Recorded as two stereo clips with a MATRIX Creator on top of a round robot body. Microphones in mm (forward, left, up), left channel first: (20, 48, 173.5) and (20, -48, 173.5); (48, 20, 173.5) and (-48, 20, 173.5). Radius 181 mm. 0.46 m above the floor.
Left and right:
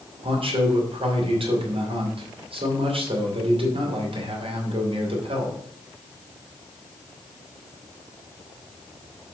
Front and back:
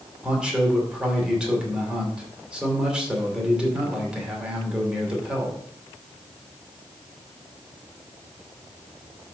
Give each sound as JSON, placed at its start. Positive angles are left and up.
{"t": 0.2, "sound": "a man speaking", "azimuth_deg": -100, "distance_m": 3.0}